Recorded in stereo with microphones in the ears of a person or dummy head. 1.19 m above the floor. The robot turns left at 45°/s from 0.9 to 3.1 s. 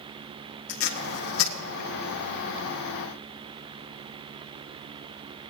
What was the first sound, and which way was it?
Tape being pulled, 75° left (ahead or behind).